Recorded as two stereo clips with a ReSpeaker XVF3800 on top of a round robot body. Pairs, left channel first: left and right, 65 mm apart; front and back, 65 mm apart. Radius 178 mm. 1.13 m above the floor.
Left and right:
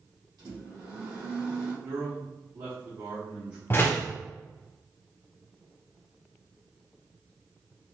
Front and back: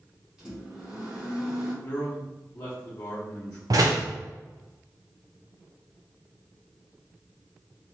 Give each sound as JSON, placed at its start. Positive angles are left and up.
{"t": 0.4, "sound": "a microwave", "azimuth_deg": -105, "distance_m": 1.5}
{"t": 1.8, "sound": "a man speaking", "azimuth_deg": -50, "distance_m": 1.1}
{"t": 3.7, "sound": "a door slam", "azimuth_deg": 150, "distance_m": 0.5}